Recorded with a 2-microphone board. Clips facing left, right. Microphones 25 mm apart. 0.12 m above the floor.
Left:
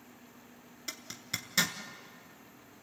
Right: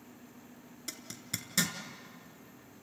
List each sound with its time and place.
0.9 s a zipper: 15° left (ahead or behind), 1.2 m